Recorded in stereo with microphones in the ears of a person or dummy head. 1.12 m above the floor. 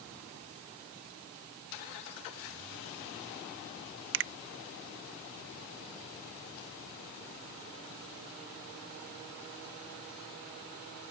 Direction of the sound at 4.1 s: 50° right (ahead or behind).